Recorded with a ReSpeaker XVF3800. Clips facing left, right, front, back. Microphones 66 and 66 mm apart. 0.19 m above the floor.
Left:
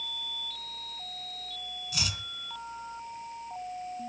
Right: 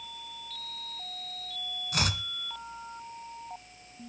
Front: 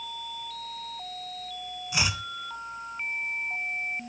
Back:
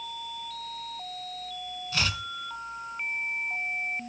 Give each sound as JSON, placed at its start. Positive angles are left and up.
{"t": 1.9, "sound": "chopping", "azimuth_deg": -70, "distance_m": 1.1}